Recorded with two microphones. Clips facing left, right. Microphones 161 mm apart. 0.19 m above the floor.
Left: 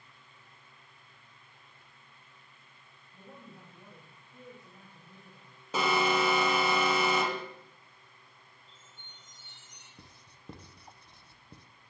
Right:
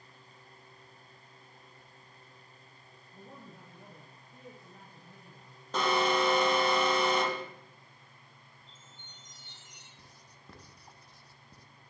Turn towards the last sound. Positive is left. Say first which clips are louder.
# left 1 dB
turn(degrees=25)  # may be behind; listen again after turning